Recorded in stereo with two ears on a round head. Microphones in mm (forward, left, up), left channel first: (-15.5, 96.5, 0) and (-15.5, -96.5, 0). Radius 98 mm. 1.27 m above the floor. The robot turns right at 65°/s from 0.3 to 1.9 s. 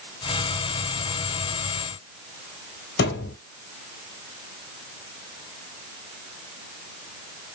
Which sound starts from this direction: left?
A thud, at 3.0 s.